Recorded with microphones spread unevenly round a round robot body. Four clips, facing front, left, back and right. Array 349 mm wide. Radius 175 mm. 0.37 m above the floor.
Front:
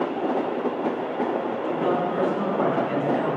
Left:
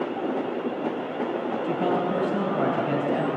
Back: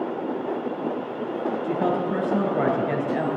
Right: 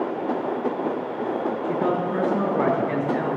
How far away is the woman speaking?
About 3 m.